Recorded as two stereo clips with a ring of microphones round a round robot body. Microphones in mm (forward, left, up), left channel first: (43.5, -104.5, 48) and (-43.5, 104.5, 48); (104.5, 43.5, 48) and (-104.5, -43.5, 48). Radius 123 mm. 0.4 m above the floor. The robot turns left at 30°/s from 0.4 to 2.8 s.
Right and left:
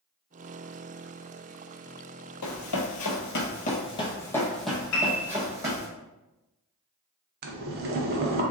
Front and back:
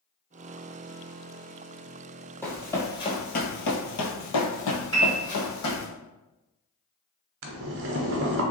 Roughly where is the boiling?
Behind.